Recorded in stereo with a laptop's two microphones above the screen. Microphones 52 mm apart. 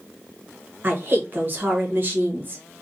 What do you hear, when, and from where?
0.8 s a woman speaking: 40° right (ahead or behind), 0.9 m